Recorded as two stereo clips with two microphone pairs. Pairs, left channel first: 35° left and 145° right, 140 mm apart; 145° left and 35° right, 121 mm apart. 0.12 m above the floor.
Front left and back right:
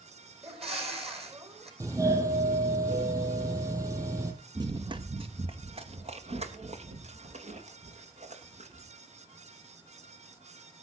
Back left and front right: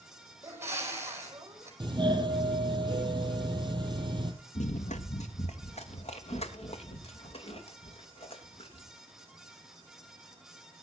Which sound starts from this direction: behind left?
Running footsteps, at 4.5 s.